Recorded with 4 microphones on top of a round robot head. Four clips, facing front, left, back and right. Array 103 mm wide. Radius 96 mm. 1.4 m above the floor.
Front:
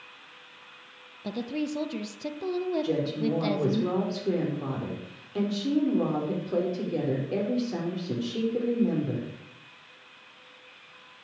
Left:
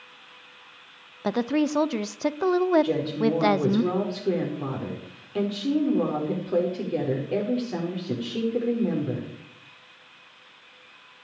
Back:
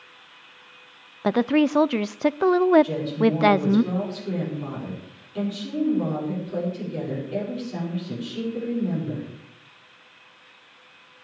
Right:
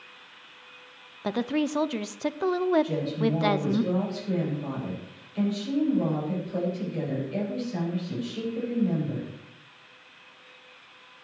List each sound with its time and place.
1.2 s a woman speaking: 165° left, 0.6 m
2.8 s a woman speaking: 65° left, 5.5 m